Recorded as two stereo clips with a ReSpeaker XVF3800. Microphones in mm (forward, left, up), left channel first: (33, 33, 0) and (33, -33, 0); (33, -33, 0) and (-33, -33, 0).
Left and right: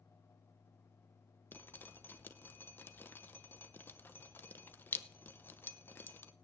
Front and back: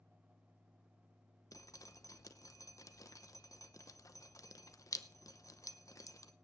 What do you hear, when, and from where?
1.5 s dripping: 30° left, 0.8 m